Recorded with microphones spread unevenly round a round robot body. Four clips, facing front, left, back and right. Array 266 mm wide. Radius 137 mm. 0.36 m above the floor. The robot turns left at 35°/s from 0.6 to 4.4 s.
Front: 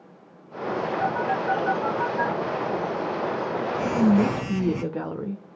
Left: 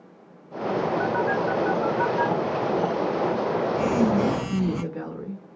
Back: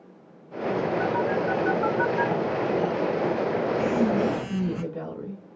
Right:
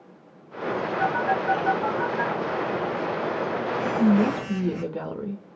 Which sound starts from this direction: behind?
A phone buzzing, at 1.0 s.